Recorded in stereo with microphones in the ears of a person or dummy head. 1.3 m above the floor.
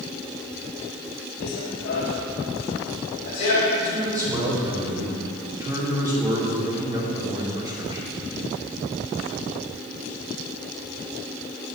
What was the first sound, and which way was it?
Running footsteps, 50° left (ahead or behind).